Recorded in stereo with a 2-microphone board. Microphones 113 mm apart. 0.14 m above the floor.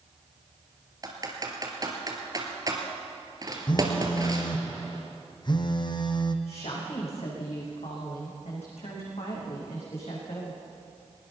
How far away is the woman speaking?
About 9 m.